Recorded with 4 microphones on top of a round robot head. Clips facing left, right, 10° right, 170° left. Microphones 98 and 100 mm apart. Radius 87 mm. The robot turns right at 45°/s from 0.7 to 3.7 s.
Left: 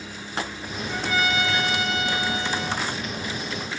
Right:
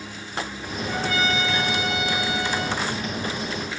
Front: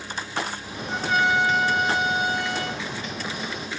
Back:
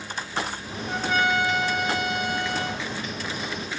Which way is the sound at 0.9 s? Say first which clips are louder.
Even, front 1 dB; 115° right.